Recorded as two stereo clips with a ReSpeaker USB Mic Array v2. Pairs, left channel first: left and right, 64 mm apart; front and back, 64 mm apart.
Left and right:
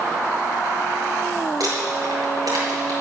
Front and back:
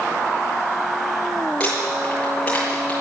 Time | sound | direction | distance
1.6 | crumpling | 70° right | 7 m